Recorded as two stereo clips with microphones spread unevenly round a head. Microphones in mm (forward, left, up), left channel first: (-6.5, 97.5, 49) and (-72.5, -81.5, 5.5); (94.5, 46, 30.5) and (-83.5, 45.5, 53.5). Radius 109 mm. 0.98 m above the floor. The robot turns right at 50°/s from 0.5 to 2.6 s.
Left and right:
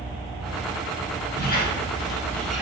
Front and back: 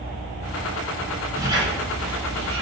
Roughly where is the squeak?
Left.